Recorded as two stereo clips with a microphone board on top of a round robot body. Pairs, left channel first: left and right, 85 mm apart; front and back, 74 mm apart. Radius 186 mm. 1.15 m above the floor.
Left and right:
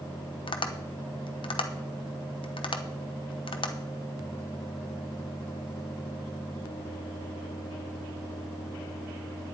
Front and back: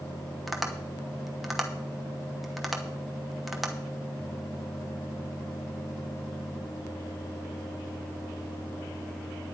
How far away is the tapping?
About 1.1 m.